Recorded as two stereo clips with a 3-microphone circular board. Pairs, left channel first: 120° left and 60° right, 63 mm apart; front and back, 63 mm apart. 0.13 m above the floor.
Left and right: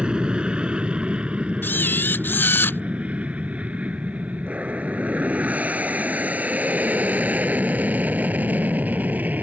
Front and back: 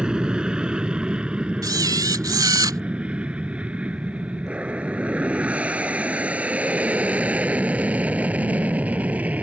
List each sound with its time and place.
0.0 s an aircraft: 120° right
1.6 s a camera shutter: 175° left